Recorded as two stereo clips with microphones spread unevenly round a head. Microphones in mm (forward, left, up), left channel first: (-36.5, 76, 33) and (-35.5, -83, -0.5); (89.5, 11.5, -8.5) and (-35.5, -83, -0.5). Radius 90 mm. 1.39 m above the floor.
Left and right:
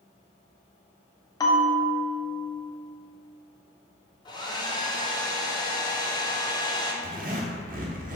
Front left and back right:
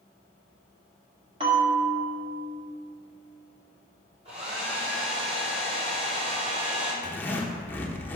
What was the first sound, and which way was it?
A bell, 155° left.